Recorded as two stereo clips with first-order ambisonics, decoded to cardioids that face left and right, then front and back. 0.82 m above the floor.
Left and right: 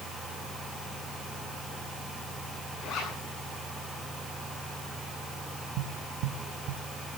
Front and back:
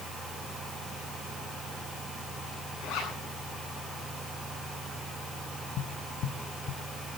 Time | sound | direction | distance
2.8 | a zipper | 35° left | 8.5 m
5.8 | tapping | 50° right | 0.9 m